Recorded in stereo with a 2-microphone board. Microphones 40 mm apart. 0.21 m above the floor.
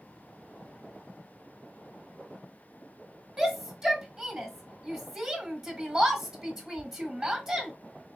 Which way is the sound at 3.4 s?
10° right (ahead or behind).